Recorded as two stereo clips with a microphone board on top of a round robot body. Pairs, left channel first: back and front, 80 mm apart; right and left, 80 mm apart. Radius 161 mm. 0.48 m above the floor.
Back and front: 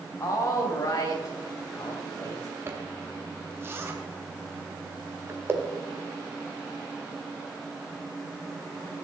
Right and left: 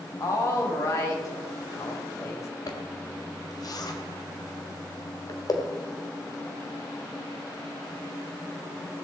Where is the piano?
No piano in this recording.